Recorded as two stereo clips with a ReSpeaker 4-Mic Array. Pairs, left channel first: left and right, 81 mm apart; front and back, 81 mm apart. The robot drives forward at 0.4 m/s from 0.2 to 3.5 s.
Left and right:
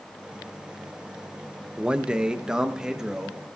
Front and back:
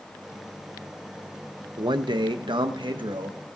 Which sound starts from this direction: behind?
A man speaking, at 1.8 s.